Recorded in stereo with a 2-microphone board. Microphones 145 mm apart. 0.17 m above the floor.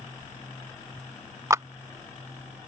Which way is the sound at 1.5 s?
20° right (ahead or behind).